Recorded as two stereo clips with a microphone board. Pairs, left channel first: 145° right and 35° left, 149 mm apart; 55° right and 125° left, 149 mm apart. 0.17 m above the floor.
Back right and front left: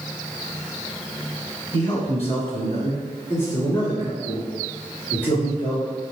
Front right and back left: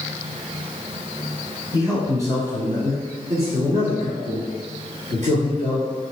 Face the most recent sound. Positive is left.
turn(degrees=140)